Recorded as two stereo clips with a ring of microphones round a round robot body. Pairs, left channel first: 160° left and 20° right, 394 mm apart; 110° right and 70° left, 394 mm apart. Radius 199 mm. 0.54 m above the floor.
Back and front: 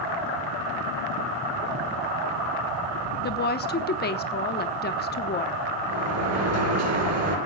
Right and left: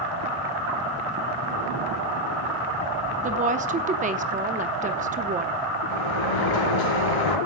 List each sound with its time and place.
3.2 s a woman speaking: 120° left, 0.8 m
5.9 s a sliding door: 75° right, 5 m